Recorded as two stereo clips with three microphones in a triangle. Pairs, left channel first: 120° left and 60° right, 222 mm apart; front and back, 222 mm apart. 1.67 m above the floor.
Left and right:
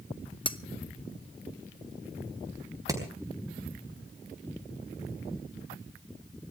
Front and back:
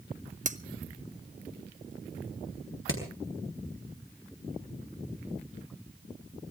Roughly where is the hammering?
Ahead.